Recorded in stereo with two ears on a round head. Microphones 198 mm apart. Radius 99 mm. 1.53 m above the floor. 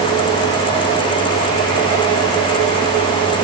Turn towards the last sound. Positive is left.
No sound to turn to.